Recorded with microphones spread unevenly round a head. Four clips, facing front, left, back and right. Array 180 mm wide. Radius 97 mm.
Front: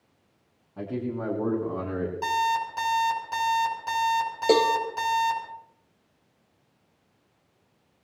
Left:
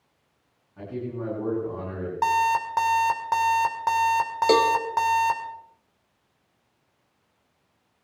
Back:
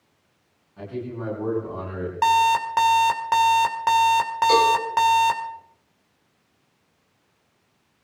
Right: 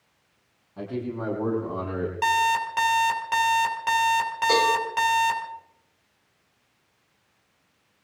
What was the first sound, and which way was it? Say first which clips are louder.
A man speaking: right 2 dB, front 1 dB; 30° right.